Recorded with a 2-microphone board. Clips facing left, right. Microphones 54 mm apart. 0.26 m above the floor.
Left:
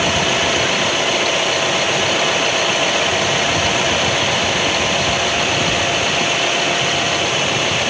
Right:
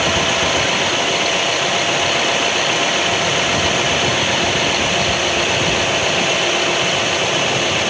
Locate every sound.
Only background noise.